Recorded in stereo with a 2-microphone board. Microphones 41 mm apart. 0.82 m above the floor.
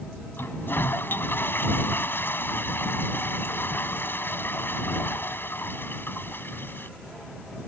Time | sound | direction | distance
0.4 | a toilet flushing | 55° left (ahead or behind) | ?